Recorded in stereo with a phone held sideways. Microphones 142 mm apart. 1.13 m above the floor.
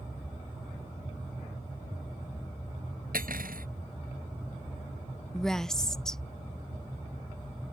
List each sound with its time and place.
3.1 s cutlery clinking: 80° right
5.3 s a woman speaking: 5° left (ahead or behind)